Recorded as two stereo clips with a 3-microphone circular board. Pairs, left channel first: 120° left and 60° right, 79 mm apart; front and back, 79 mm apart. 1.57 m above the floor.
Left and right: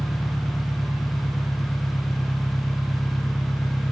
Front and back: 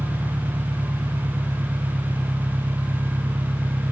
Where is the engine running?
Straight behind.